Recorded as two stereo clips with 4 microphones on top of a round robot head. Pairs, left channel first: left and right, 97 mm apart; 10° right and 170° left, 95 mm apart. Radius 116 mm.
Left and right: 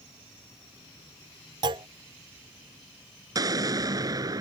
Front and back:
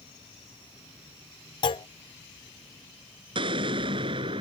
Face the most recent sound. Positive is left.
turn(degrees=-140)